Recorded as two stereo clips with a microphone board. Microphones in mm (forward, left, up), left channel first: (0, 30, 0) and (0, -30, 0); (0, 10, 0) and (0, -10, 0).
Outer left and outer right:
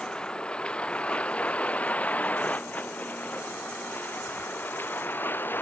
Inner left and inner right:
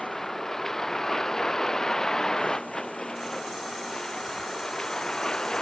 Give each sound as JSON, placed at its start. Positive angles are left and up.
{"t": 0.0, "sound": "a vehicle", "side_deg": 15}